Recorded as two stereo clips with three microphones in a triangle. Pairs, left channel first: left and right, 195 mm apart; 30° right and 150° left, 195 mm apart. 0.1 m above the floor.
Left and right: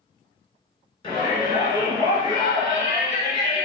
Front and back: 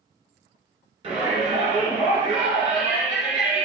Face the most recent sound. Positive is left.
turn(degrees=125)